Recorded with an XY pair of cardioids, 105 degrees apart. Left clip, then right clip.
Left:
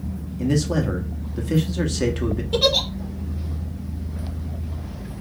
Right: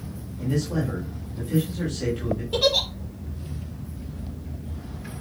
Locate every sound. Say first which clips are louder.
0.4 s a man speaking: left 5 dB; 70° left, 1.1 m
2.5 s a giggle: left 2 dB; 10° left, 1.2 m